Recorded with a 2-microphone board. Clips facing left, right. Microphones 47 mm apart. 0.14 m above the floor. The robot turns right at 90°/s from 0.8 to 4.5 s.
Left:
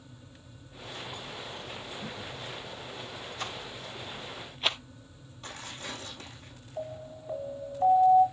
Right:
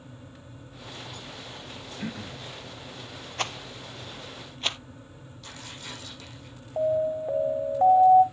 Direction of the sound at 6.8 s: 60° right (ahead or behind).